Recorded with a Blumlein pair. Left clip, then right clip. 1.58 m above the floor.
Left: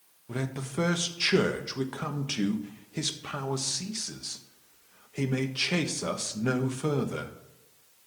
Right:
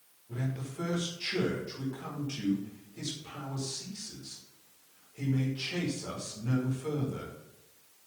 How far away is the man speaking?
About 1.5 m.